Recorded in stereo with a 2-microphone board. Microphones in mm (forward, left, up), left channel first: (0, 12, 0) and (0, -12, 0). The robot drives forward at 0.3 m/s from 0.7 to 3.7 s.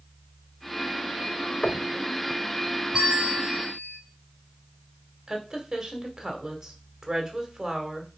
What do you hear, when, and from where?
1.6 s knocking: 45° left (ahead or behind), 0.7 m; by 1.9 s 50° left (ahead or behind), 0.7 m
2.9 s a bell: 25° right (ahead or behind), 5 m
5.3 s a woman speaking: 20° right (ahead or behind), 1.8 m